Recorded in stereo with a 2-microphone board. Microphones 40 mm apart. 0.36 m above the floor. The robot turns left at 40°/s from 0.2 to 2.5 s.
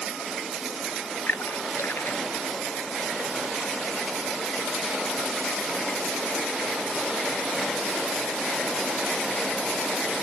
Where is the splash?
70° left (ahead or behind); by 2.4 s 60° left (ahead or behind).